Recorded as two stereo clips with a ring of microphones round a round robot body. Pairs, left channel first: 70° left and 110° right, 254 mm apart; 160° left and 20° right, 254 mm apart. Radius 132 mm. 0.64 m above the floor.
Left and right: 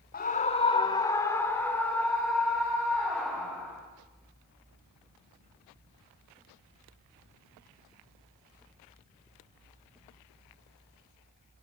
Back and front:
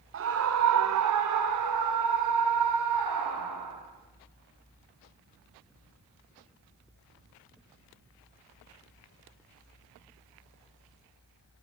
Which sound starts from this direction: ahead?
A scream, at 0.1 s.